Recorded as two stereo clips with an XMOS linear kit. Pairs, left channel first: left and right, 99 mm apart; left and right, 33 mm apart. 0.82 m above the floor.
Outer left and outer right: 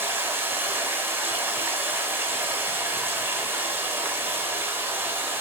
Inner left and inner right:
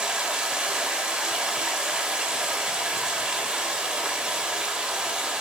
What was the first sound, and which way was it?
Running water, 20° right (ahead or behind).